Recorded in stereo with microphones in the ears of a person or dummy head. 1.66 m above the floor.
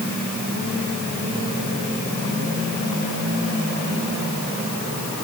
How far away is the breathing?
No breathing in this recording.